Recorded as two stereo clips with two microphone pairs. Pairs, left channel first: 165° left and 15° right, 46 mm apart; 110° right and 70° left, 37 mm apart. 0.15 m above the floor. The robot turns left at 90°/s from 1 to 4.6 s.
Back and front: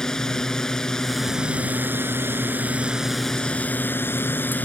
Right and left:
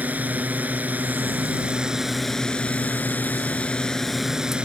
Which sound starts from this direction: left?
A drone, at 0.0 s.